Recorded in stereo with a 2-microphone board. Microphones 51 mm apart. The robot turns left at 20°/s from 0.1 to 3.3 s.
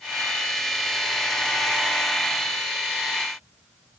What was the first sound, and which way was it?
Only background noise.